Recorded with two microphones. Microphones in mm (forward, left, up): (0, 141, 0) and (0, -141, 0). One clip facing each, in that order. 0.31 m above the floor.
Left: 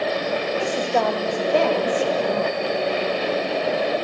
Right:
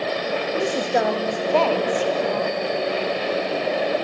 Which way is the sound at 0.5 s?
25° right (ahead or behind).